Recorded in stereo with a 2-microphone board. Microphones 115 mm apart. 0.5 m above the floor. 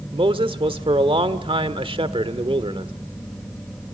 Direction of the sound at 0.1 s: 50° right (ahead or behind).